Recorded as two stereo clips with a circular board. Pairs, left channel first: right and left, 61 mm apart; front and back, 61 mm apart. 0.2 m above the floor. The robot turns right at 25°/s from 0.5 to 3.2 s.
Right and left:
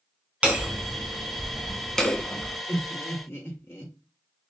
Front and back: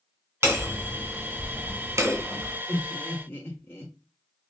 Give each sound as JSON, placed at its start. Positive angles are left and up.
{"t": 0.4, "sound": "hammering", "azimuth_deg": 155, "distance_m": 1.2}
{"t": 2.7, "sound": "laughter", "azimuth_deg": -60, "distance_m": 2.5}